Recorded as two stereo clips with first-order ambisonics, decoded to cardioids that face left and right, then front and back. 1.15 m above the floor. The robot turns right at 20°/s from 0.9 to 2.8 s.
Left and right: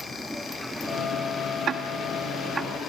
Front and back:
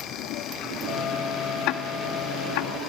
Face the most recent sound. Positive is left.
turn(degrees=-5)